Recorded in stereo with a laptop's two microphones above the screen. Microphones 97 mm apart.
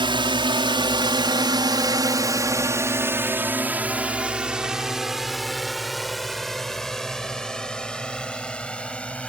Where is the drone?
60° right (ahead or behind); by 9.3 s 10° left (ahead or behind).